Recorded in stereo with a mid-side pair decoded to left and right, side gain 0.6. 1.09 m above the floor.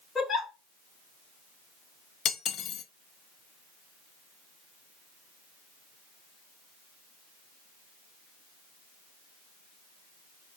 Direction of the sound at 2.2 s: 50° left.